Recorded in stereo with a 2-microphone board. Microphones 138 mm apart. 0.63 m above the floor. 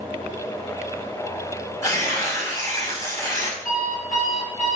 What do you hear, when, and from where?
1.8 s tearing paper: 25° left (ahead or behind), 5 m
3.6 s an alarm clock: 70° left (ahead or behind), 6 m